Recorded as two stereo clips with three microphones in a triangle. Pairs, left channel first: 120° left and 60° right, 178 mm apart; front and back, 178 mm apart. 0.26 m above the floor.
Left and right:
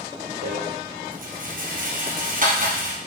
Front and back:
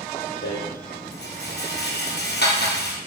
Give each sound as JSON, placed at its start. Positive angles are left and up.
{"t": 0.4, "sound": "a rattle", "azimuth_deg": -20, "distance_m": 3.0}